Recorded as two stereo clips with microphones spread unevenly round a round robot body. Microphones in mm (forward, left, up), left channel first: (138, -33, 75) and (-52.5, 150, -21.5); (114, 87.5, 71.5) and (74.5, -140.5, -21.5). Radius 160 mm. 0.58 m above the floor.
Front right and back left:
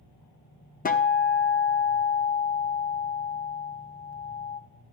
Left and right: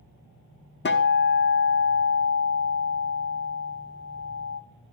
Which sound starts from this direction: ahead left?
A guitar, at 0.8 s.